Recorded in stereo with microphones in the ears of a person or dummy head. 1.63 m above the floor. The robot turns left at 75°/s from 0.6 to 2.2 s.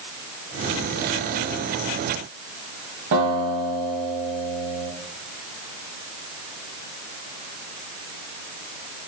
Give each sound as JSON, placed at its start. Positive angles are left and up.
{"t": 3.1, "sound": "a guitar", "side_deg": -70, "distance_m": 1.3}